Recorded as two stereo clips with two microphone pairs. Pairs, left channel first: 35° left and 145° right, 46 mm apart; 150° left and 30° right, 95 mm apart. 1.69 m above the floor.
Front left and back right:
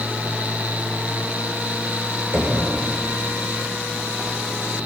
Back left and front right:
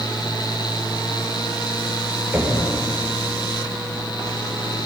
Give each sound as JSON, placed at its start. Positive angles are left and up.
{"t": 2.3, "sound": "knocking", "azimuth_deg": -105, "distance_m": 6.0}